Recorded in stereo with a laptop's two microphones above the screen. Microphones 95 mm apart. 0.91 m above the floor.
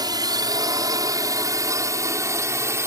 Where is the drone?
45° right (ahead or behind); by 2.9 s 30° right (ahead or behind).